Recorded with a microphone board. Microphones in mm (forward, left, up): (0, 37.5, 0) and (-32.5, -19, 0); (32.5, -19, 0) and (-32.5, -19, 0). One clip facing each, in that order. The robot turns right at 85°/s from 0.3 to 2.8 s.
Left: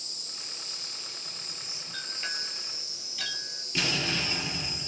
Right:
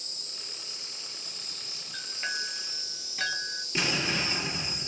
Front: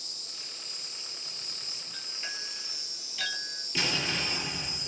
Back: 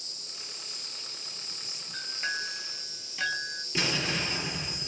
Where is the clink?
160° left, 0.8 m; by 3.6 s 125° right, 0.8 m.